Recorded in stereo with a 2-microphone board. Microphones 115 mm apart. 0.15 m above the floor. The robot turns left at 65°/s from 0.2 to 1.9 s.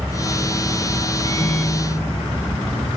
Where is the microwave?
35° left, 4 m; by 2.9 s 10° right, 4 m.